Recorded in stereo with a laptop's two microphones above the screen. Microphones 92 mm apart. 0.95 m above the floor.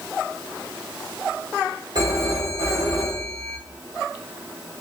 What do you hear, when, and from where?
1.9 s a phone ringing: 55° right (ahead or behind), 1.7 m